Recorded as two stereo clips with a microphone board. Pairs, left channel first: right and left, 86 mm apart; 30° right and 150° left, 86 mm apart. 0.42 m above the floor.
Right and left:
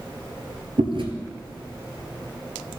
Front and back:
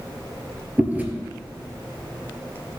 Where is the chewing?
75° left, 1.6 m.